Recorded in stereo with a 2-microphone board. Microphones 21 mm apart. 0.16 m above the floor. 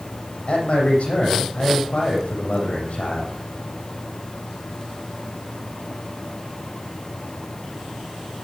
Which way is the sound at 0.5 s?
75° left (ahead or behind).